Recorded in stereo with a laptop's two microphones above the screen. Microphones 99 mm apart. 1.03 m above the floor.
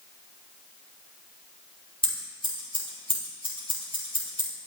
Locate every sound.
2.0 s scissors: 65° left (ahead or behind), 4 m